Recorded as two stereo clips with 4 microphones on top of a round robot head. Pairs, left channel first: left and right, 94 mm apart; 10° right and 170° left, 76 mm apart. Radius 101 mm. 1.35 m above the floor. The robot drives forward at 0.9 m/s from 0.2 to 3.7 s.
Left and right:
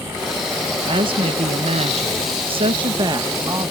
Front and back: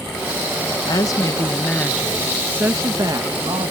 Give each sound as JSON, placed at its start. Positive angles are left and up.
{"t": 0.8, "sound": "a woman speaking", "azimuth_deg": -50}